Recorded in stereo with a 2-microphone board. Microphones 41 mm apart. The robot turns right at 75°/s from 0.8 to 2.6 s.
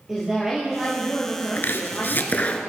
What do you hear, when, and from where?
0.1 s a woman speaking: 15° right, 3 m; by 2.4 s 105° left, 3 m
1.6 s chopping: 70° left, 1.0 m; by 2.6 s 150° left, 1.0 m